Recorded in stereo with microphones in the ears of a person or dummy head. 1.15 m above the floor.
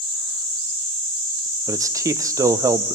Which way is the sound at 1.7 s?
20° right (ahead or behind).